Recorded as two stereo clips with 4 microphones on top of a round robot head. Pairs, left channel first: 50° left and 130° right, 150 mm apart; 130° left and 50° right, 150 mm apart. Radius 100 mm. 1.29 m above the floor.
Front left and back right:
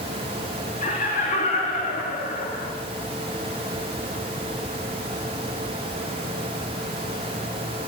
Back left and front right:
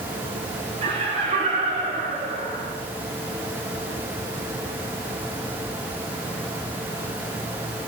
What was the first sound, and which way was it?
Laughter, 5° left.